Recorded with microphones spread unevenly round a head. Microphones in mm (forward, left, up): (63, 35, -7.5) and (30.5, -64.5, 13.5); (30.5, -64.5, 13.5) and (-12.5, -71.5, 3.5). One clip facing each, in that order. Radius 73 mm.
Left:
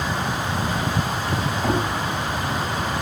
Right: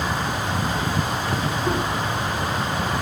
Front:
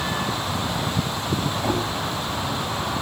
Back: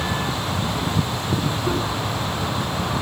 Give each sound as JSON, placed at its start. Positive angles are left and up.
{"t": 1.6, "sound": "knocking", "azimuth_deg": 50, "distance_m": 8.5}